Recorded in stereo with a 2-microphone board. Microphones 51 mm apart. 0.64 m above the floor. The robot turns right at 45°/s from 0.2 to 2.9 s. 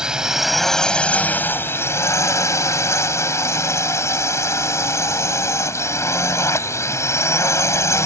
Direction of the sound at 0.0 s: 15° right.